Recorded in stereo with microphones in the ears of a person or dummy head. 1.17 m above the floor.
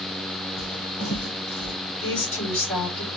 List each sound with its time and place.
0.6 s footsteps: 35° left (ahead or behind), 3 m; by 1.8 s 45° left (ahead or behind), 2.5 m
2.0 s a woman speaking: 15° left (ahead or behind), 3 m